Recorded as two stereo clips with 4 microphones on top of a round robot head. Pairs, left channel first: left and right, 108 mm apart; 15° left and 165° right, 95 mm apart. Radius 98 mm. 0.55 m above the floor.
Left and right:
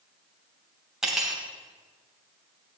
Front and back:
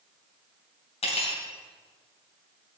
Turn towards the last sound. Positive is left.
turn(degrees=-5)